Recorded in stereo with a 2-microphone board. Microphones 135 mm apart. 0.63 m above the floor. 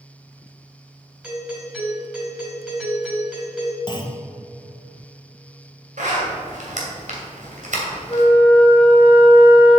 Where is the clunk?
35° left (ahead or behind), 1.3 m.